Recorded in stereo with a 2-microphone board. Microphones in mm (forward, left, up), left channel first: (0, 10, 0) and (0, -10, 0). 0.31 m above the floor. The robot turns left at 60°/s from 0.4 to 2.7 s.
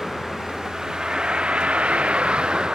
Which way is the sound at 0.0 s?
5° left.